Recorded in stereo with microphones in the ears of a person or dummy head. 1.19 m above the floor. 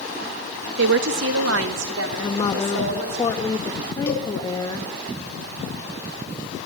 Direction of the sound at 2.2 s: 20° left (ahead or behind).